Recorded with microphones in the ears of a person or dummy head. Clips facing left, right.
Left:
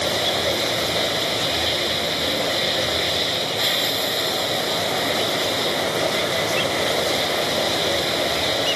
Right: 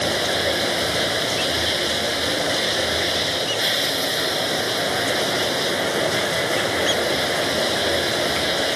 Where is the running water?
15° right (ahead or behind).